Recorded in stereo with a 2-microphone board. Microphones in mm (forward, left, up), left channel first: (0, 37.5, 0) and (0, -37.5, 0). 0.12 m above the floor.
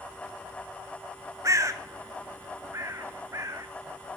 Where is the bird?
45° right (ahead or behind), 0.7 m.